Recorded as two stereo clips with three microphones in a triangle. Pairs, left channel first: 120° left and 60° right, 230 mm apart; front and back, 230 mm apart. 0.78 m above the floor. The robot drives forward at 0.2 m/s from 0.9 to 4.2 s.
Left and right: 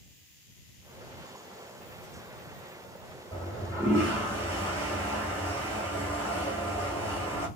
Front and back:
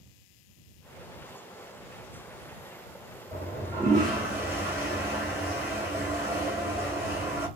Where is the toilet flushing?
135° right, 1.7 m; by 7.5 s 140° right, 1.9 m.